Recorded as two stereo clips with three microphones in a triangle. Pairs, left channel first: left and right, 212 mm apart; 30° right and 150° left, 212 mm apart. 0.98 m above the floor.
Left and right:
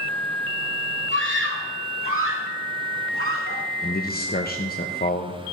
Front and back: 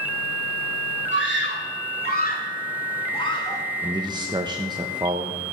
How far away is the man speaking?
About 0.9 m.